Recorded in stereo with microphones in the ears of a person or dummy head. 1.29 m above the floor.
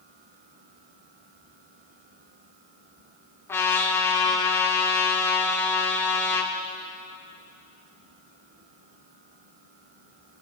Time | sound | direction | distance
3.5 | a trumpet | 15° left (ahead or behind) | 2.0 m